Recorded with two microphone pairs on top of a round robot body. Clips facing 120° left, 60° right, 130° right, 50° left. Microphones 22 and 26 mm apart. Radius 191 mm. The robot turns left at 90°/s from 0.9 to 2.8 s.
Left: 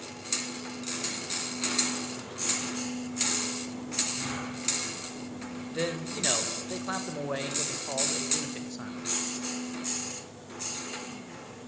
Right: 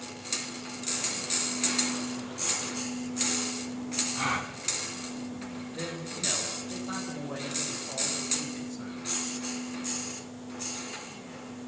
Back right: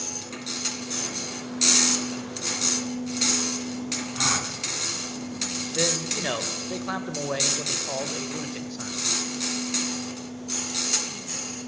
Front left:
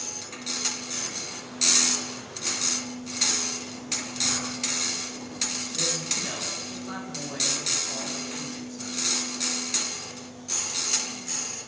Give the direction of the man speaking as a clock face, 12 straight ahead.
6 o'clock.